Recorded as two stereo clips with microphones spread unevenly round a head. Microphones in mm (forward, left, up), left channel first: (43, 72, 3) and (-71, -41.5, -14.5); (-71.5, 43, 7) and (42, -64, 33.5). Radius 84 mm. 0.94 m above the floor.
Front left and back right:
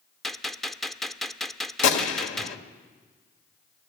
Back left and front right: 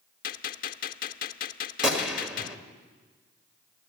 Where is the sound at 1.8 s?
40° left, 1.9 m.